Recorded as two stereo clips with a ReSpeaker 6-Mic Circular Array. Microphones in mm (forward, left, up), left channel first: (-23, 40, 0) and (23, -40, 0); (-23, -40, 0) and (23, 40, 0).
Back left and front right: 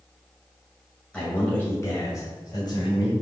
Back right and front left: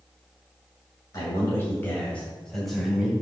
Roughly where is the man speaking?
Behind.